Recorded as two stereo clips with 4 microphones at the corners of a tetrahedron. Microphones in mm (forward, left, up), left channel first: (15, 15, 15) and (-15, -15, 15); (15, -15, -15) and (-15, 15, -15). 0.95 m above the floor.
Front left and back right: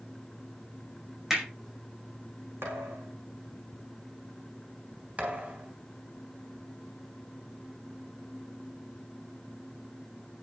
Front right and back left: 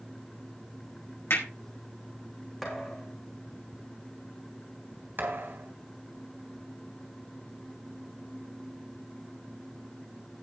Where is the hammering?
55° right, 5 m.